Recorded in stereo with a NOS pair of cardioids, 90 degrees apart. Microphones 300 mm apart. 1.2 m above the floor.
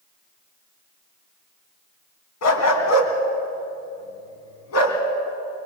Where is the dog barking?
65° left, 3 m.